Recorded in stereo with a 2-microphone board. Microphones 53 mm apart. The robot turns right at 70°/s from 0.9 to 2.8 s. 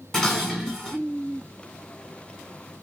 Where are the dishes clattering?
10° left (ahead or behind), 1.0 m; by 1.0 s 5° left (ahead or behind), 1.0 m.